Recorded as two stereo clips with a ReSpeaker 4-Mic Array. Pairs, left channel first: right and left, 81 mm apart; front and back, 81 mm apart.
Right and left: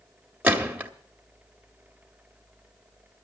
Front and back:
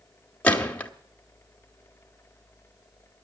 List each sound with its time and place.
0.4 s a gunshot: 55° left, 1.3 m